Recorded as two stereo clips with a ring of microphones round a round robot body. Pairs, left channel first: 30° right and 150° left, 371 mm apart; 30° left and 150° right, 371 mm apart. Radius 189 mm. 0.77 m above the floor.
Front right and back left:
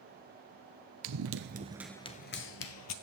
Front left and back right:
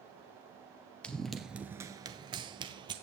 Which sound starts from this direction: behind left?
Running footsteps, at 1.0 s.